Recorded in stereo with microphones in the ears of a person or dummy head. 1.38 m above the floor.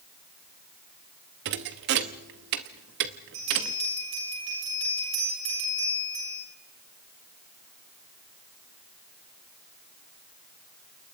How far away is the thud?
About 0.9 m.